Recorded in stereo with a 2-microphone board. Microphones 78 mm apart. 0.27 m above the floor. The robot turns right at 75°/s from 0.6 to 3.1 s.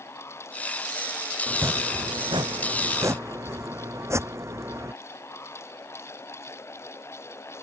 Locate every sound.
1.5 s chopping: 160° right; by 4.9 s 40° right